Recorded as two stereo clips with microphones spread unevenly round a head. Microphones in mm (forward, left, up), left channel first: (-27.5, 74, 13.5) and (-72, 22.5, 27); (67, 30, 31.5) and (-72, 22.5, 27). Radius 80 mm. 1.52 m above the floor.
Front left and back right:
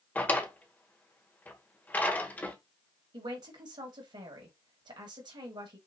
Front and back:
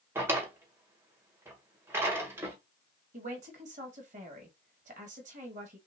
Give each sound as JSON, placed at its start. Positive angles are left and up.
{"t": 0.1, "sound": "a drawer", "azimuth_deg": 115, "distance_m": 1.4}
{"t": 3.1, "sound": "a man speaking", "azimuth_deg": -130, "distance_m": 2.0}